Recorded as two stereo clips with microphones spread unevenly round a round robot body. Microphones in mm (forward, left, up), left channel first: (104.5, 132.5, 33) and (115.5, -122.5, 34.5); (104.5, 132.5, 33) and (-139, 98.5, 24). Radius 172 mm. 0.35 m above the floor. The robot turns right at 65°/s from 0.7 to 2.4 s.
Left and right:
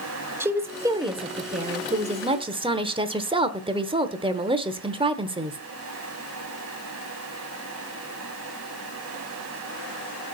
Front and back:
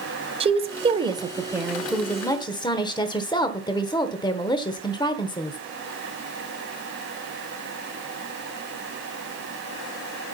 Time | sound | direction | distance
0.4 | a woman speaking | 155° right | 1.0 m